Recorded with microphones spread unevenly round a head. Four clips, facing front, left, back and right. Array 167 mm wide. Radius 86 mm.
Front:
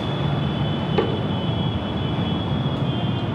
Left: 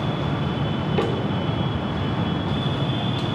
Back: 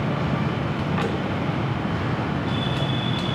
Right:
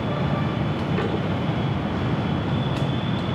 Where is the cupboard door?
15° left, 5.5 m.